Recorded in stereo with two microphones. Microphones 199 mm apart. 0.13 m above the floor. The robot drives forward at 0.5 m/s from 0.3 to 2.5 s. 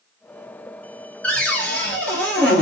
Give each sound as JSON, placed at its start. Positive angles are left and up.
{"t": 1.2, "sound": "a cupboard door", "side_deg": 5, "distance_m": 0.9}